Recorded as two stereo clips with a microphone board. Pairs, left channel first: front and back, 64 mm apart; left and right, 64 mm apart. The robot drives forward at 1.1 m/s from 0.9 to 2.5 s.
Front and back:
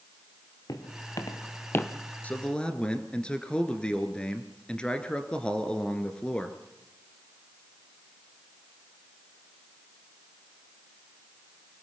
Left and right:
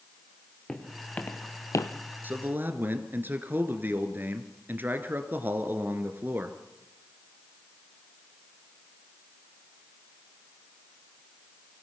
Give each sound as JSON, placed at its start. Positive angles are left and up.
{"t": 0.7, "sound": "footsteps", "azimuth_deg": 15, "distance_m": 3.5}
{"t": 2.2, "sound": "a man speaking", "azimuth_deg": -50, "distance_m": 1.9}